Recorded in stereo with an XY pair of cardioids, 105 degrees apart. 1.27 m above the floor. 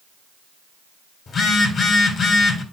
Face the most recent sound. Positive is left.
turn(degrees=50)